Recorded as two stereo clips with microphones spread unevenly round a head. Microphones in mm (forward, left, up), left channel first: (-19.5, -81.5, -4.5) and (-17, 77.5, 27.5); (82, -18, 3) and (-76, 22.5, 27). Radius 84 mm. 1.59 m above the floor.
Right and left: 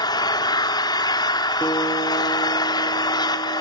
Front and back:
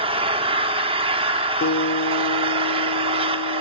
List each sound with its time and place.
0.0 s an engine running: 160° right, 1.5 m
1.6 s a guitar: 5° right, 2.5 m